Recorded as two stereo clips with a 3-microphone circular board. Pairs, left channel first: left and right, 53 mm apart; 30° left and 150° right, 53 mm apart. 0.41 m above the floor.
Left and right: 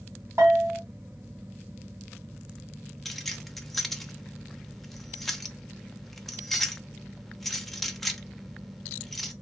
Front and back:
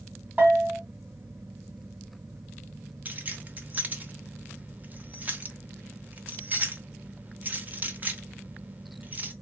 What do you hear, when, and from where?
0.4 s a bell: 100° right, 2.5 m
3.0 s keys jangling: 175° left, 0.7 m